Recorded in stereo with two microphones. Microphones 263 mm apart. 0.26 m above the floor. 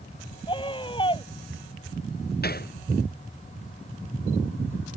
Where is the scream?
20° left (ahead or behind).